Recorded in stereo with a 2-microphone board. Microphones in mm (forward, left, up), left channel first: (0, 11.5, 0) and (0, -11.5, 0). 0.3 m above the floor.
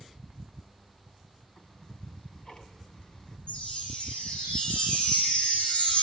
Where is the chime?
50° left (ahead or behind), 9 m.